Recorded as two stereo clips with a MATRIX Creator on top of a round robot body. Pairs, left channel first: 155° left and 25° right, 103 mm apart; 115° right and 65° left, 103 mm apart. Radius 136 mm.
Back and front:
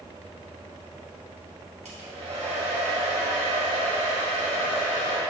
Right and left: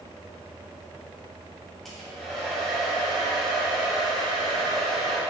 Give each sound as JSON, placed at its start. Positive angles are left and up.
{"t": 1.9, "sound": "a hair dryer", "azimuth_deg": -25, "distance_m": 2.0}